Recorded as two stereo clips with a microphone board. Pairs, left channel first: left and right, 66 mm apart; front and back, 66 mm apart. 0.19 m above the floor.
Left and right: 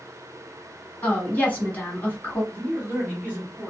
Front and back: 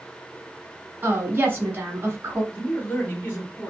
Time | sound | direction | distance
1.0 | a woman speaking | 140° left | 1.4 m
2.5 | a man speaking | 45° right | 2.0 m